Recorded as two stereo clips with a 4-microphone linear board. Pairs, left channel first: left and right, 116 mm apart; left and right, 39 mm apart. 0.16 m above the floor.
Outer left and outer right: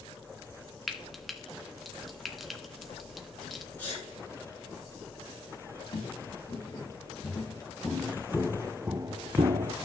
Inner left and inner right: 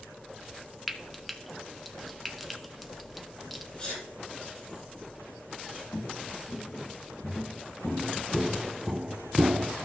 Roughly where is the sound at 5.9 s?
Left.